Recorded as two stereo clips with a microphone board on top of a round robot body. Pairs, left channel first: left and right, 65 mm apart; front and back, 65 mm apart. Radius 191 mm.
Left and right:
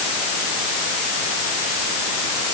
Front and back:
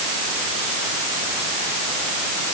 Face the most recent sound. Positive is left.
No sound to turn to.